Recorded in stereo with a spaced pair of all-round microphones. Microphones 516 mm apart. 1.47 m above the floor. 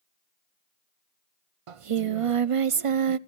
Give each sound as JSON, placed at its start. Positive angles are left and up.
{"t": 1.7, "sound": "singing", "side_deg": -70, "distance_m": 0.6}